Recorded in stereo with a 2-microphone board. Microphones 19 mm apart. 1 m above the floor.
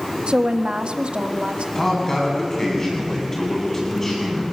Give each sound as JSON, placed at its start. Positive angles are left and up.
{"t": 0.3, "sound": "a woman speaking", "side_deg": -55, "distance_m": 1.5}
{"t": 1.8, "sound": "a man speaking", "side_deg": 25, "distance_m": 9.5}